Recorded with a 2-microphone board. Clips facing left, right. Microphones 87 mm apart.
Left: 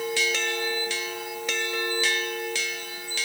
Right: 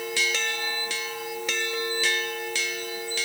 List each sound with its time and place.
Only background noise.